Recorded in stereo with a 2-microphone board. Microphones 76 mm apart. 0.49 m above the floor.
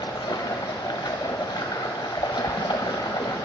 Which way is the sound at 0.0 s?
85° left.